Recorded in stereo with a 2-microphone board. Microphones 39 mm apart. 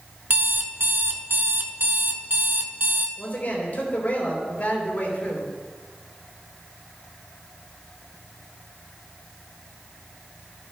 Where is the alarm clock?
60° right (ahead or behind), 0.8 m.